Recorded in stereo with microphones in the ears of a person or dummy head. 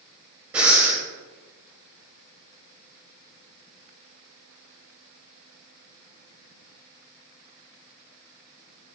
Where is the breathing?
5° right (ahead or behind), 3 m.